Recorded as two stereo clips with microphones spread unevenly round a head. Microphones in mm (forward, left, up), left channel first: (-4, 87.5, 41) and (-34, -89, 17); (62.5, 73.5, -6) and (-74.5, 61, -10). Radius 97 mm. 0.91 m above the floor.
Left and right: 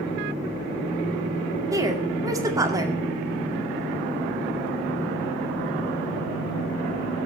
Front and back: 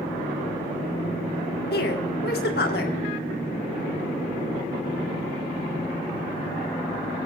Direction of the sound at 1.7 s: 30° right.